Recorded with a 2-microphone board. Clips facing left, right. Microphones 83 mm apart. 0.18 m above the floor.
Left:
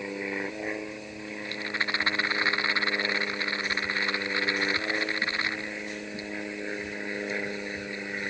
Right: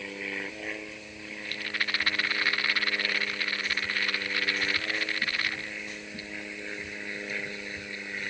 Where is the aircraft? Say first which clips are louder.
Left 4 dB; 20° left (ahead or behind); by 8.3 s 25° left (ahead or behind).